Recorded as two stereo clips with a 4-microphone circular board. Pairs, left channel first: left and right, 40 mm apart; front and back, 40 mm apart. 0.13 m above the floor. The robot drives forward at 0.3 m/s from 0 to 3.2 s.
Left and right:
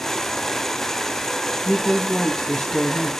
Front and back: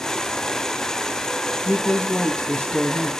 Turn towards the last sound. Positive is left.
turn(degrees=35)